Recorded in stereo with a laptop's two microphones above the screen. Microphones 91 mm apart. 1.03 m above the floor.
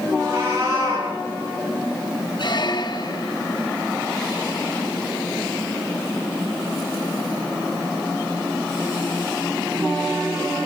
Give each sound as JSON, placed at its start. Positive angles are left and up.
{"t": 0.2, "sound": "a cat meowing", "side_deg": -35, "distance_m": 8.0}
{"t": 2.4, "sound": "a squeak", "side_deg": 55, "distance_m": 1.0}